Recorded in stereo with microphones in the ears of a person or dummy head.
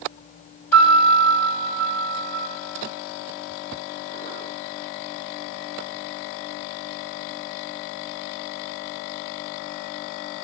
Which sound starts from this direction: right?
A piano, at 0.7 s.